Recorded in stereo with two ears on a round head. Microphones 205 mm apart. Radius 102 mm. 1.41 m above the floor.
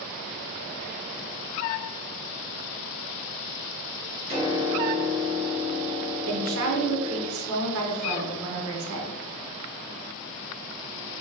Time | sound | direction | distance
4.3 | a piano | 30° right (ahead or behind) | 1.5 m
6.3 | a woman speaking | 70° right (ahead or behind) | 0.8 m